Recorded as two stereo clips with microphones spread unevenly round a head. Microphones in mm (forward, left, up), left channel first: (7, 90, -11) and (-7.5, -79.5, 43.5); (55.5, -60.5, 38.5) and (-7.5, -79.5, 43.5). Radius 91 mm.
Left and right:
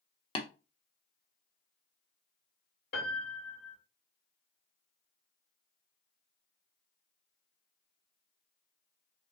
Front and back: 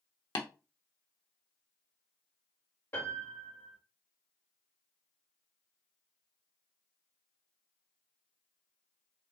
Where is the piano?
80° left, 2 m.